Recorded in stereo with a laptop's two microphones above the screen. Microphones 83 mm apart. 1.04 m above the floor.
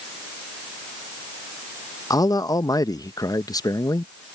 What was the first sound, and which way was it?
A man speaking, 45° left (ahead or behind).